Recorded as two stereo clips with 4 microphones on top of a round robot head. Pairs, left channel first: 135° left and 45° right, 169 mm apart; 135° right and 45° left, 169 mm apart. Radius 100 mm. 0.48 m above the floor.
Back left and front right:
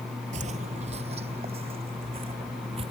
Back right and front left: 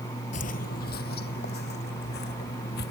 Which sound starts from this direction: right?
Footsteps, at 0.3 s.